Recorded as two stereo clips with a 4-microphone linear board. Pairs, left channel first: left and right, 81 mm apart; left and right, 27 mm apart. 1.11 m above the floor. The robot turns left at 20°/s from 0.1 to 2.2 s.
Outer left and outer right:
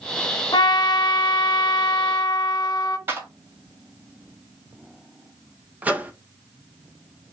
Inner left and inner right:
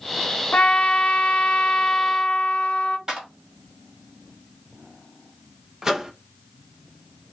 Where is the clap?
30° right (ahead or behind), 2.0 m.